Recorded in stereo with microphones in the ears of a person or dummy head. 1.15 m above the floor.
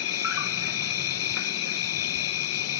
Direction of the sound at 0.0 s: 70° left (ahead or behind).